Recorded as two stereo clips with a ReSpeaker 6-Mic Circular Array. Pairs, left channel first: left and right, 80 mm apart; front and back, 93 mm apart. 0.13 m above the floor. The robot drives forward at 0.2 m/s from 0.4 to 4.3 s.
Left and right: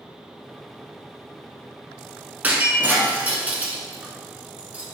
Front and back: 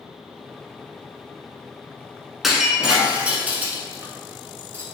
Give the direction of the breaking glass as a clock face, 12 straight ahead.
3 o'clock.